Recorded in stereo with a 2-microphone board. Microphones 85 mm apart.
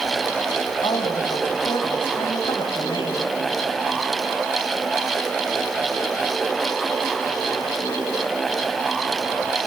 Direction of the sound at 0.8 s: 75° left (ahead or behind).